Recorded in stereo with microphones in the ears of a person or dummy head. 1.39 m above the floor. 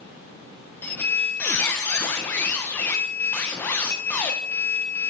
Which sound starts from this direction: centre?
A squeak, at 0.8 s.